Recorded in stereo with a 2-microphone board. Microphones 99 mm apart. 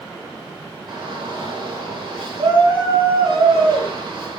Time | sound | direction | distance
0.9 | a shout | 50° right (ahead or behind) | 8 m